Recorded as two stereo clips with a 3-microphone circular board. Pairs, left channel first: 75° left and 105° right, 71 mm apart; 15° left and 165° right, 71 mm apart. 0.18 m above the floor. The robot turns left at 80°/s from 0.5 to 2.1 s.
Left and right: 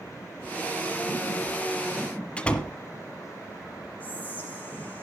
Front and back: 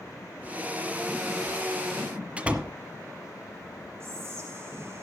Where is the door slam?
140° left, 1.3 m.